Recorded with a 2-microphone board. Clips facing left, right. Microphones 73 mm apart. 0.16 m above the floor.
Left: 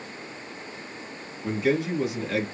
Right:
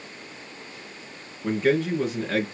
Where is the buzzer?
I don't hear a buzzer.